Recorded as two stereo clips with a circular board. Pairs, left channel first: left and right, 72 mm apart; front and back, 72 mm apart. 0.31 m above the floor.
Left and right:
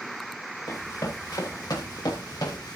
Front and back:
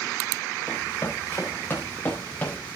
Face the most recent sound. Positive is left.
turn(degrees=70)